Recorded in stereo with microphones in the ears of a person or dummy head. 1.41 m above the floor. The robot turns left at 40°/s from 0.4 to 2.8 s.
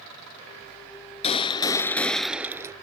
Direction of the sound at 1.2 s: 40° left.